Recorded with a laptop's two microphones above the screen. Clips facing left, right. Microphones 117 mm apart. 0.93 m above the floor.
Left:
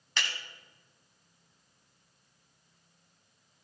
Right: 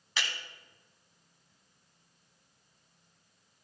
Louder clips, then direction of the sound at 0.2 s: Even; centre (ahead or behind).